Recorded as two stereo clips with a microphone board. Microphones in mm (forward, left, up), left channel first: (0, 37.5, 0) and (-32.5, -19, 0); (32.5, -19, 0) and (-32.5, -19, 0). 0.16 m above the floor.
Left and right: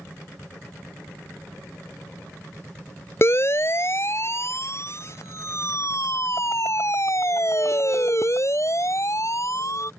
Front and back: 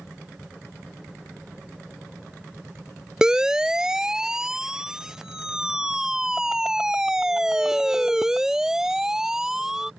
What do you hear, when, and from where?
3.2 s a siren: 100° left